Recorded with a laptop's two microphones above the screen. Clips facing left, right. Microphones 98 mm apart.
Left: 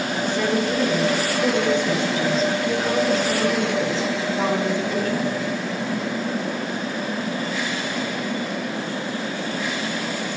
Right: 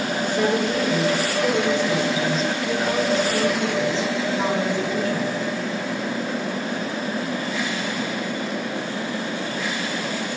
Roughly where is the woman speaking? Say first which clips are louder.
Right 1 dB; centre.